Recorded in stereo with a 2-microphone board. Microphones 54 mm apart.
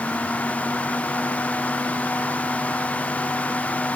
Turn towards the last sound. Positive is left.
No sound to turn to.